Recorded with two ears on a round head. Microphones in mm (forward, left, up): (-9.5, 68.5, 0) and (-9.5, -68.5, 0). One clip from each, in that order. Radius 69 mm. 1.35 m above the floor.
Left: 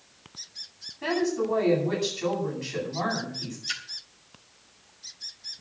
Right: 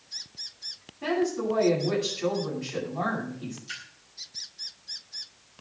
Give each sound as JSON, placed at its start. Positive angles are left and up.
{"t": 1.0, "sound": "a woman speaking", "side_deg": 20, "distance_m": 9.0}
{"t": 3.7, "sound": "a splash", "side_deg": 80, "distance_m": 3.5}